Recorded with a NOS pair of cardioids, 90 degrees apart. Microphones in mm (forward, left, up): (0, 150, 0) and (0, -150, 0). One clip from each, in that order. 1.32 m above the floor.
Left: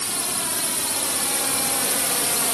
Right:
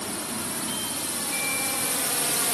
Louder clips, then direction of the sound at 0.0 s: Left 5 dB; 60° left.